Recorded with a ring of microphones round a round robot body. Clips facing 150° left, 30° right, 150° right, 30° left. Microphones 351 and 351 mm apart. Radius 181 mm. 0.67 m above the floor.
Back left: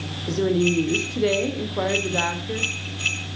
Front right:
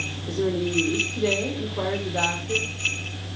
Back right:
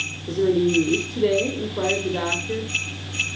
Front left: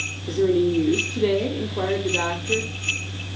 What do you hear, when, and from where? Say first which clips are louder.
0.3 s a woman speaking: back left 4 dB, even; 115° left, 2 m